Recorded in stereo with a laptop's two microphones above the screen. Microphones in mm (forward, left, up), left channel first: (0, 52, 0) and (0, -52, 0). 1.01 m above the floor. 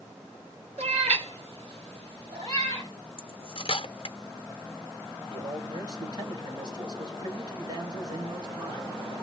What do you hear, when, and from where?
0.8 s a cat meowing: 80° right, 1.3 m; by 2.9 s 60° right (ahead or behind), 3.5 m
3.2 s cutlery clinking: 60° left (ahead or behind), 0.5 m
5.3 s a man speaking: 45° right (ahead or behind), 2.5 m